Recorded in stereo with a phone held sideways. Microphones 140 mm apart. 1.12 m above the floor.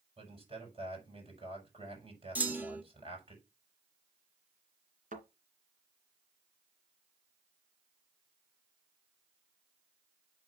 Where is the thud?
65° right (ahead or behind), 2.5 m.